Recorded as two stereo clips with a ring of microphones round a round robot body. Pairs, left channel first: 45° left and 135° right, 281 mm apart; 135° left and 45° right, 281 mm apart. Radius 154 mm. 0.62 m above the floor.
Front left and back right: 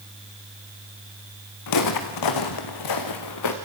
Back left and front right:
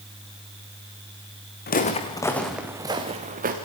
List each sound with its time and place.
1.7 s footsteps: 75° left, 2.5 m; by 3.5 s 15° left, 3.5 m